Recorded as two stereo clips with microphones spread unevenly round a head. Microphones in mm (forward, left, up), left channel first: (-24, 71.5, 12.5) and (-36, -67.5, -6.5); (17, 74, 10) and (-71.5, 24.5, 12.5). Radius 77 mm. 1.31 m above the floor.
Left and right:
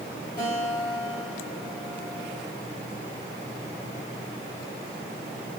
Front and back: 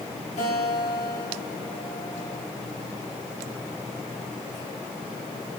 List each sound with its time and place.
0.4 s a guitar: 20° left, 3.5 m